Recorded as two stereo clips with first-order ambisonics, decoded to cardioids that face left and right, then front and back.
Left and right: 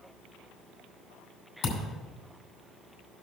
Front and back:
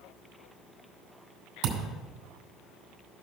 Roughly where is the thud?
Behind left.